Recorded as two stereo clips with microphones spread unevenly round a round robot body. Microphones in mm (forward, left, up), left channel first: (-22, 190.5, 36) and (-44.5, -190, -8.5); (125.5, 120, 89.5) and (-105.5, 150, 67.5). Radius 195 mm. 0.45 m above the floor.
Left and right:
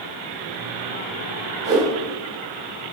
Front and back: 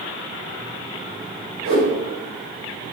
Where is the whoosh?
170° right, 3 m.